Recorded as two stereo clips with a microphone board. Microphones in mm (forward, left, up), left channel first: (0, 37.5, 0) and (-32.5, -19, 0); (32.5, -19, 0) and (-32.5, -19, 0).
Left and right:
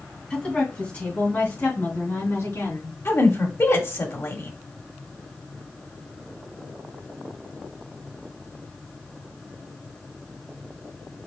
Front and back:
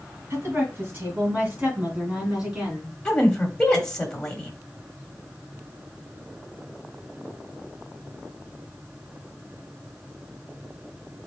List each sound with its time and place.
0.3 s a woman speaking: 130° left, 2.5 m; by 3.0 s 95° left, 3.5 m
3.0 s a woman speaking: 75° left, 1.6 m